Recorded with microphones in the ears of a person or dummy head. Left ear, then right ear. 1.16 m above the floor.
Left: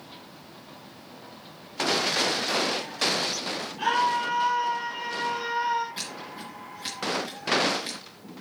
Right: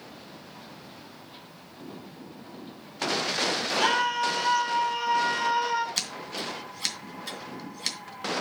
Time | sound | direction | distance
3.8 | a scream | 60° right (ahead or behind) | 3.5 m
6.0 | scissors | 55° right (ahead or behind) | 2.5 m